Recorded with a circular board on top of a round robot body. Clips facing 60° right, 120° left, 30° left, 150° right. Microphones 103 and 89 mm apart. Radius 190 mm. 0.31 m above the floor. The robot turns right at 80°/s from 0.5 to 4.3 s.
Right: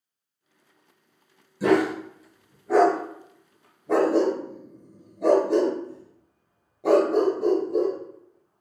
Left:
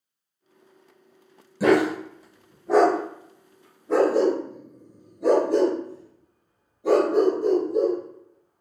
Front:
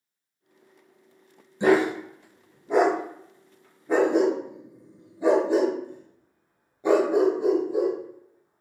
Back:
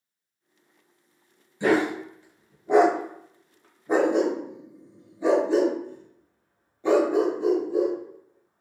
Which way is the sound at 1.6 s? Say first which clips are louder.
Left 2 dB, front 2 dB; 95° left.